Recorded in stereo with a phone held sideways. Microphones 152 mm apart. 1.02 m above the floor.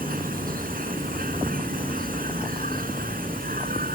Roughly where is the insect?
Right.